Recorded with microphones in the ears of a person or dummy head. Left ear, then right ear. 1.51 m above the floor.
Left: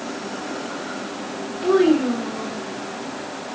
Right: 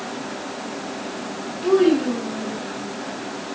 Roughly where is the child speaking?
Left.